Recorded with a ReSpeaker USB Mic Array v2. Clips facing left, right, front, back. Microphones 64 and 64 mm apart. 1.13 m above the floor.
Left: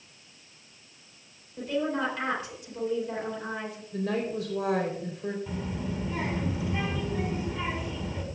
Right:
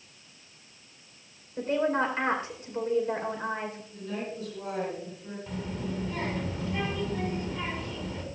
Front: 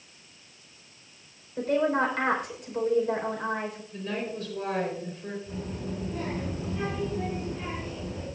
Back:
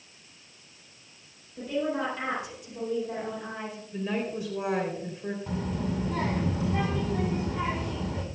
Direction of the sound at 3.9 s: 100° left.